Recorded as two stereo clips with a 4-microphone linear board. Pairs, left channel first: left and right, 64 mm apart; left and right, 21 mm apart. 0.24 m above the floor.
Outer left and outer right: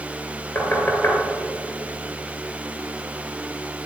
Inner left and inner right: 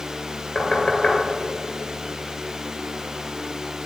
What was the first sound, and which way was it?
Knocking, 40° left (ahead or behind).